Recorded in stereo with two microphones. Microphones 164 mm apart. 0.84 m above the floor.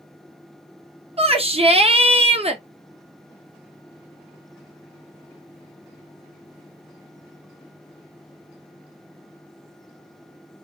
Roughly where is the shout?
Right.